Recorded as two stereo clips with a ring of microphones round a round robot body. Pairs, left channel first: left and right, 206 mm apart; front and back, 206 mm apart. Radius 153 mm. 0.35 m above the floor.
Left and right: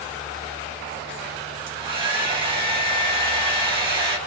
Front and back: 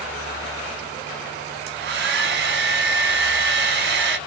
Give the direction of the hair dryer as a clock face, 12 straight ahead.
5 o'clock.